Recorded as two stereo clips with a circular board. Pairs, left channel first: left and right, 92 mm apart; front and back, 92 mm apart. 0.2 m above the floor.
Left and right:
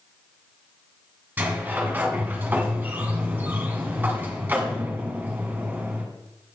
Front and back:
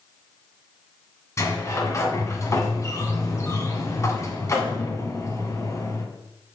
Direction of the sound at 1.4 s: 30° right.